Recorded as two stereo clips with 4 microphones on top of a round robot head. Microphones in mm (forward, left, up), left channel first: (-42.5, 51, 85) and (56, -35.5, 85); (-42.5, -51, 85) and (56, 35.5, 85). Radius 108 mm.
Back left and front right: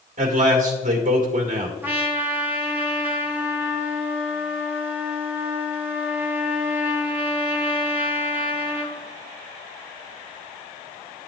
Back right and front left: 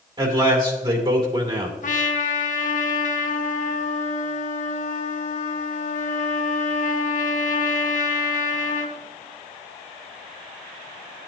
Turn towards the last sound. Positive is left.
turn(degrees=-115)